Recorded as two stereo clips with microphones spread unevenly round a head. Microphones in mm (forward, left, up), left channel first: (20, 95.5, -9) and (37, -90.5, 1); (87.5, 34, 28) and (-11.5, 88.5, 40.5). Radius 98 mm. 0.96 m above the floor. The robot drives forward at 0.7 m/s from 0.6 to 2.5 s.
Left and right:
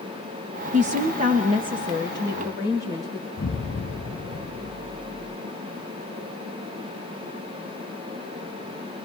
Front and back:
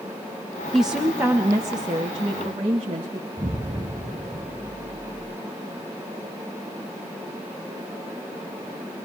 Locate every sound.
0.7 s a woman speaking: 105° right, 0.9 m; by 3.3 s 160° right, 1.7 m
3.4 s an explosion: 115° left, 1.1 m